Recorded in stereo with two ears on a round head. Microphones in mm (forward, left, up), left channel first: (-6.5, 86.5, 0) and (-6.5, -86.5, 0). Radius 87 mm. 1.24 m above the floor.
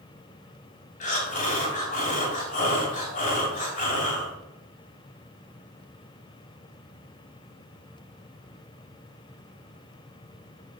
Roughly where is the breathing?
Left.